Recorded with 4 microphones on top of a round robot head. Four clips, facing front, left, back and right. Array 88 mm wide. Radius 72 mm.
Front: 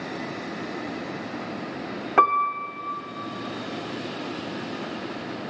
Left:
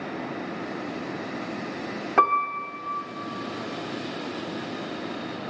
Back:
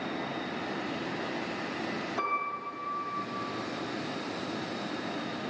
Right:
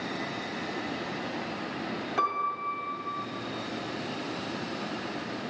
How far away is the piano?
About 0.8 m.